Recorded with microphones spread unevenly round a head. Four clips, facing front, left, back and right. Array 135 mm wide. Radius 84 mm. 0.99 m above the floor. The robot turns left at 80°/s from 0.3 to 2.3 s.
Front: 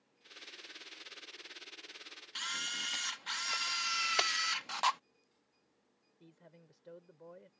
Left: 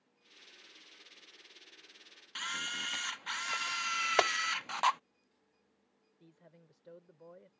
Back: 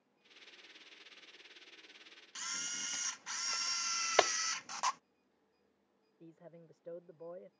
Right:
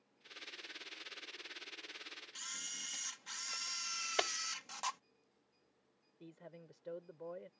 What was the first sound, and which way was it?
A camera shutter, 55° left.